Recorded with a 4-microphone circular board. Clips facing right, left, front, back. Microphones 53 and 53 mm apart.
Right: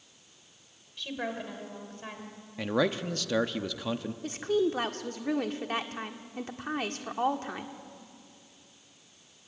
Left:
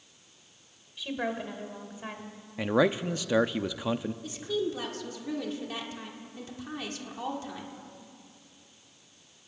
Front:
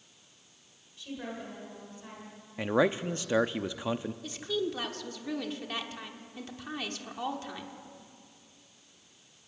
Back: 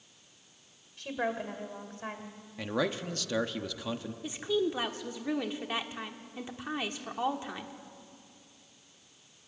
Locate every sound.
1.0 s a woman speaking: 170° left, 2 m
2.6 s a man speaking: 30° left, 0.6 m
4.2 s a woman speaking: 115° right, 1.3 m